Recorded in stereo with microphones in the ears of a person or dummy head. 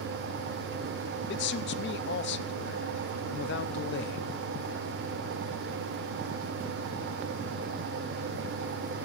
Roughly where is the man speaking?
Left.